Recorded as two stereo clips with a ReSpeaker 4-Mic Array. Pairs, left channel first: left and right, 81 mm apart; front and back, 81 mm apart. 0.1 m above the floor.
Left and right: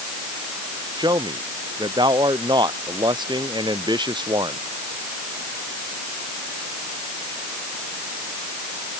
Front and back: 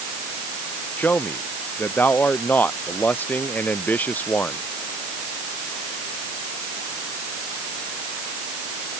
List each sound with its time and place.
1.0 s a man speaking: 70° right